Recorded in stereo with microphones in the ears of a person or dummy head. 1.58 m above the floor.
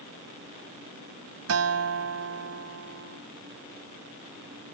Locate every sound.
1.5 s a guitar: 80° right